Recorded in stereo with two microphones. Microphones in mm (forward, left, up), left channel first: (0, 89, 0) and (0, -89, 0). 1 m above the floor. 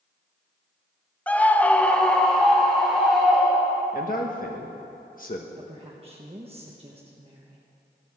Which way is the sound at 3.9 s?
50° left (ahead or behind).